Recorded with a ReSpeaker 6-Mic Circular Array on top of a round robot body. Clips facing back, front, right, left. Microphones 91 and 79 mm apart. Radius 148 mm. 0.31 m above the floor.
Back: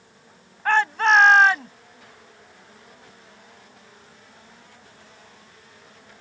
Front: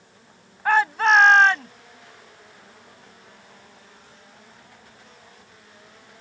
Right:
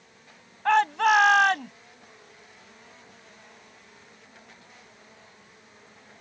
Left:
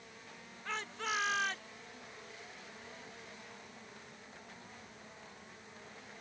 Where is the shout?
85° right; by 1.7 s 95° right.